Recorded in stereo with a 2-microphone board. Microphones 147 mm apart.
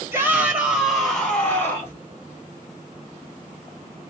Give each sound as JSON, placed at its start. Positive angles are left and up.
{"t": 0.1, "sound": "a shout", "side_deg": -20, "distance_m": 1.5}